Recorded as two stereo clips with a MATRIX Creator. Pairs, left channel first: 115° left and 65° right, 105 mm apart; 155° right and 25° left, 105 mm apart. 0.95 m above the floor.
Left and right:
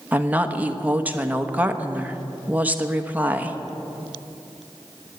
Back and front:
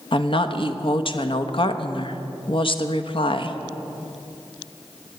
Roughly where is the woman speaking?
Behind right.